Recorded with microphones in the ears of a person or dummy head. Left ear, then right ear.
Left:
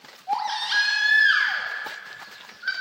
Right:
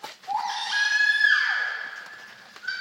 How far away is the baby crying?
About 1.9 m.